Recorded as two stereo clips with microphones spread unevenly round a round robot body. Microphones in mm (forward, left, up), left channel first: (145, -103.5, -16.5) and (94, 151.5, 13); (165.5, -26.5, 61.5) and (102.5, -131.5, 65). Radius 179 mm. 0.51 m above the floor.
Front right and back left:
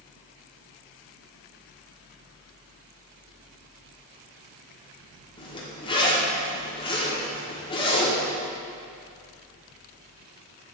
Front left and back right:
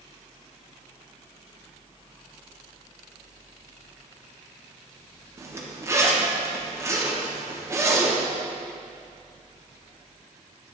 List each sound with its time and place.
5.4 s a zipper: 85° right, 1.2 m